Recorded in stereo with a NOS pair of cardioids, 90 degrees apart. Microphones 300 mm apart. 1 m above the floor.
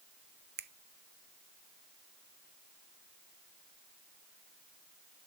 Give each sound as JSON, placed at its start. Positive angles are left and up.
{"t": 0.6, "sound": "a finger snap", "azimuth_deg": -35, "distance_m": 0.7}